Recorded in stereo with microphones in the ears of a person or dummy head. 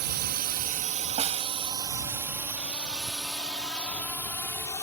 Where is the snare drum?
30° right (ahead or behind).